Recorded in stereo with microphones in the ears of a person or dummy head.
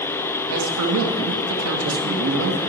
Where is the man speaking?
75° right (ahead or behind), 1.1 m.